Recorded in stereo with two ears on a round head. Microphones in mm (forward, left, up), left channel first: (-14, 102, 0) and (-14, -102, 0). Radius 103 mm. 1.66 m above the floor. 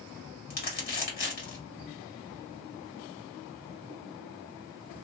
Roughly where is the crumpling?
Left.